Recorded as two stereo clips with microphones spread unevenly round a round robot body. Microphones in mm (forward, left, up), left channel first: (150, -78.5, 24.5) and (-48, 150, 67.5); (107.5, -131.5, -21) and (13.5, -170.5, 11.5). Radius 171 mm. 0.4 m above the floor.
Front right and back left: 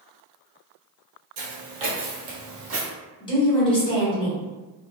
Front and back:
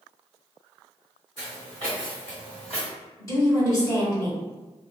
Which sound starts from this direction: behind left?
Footsteps, at 1.4 s.